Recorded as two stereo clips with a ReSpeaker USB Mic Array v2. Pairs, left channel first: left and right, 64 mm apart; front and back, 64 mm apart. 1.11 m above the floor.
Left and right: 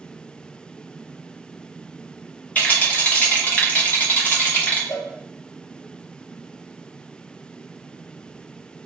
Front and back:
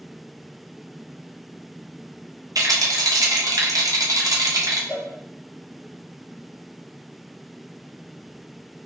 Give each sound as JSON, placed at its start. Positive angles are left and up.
{"t": 2.5, "sound": "a rattle", "azimuth_deg": 155, "distance_m": 0.7}
{"t": 4.9, "sound": "a cowbell", "azimuth_deg": 75, "distance_m": 0.7}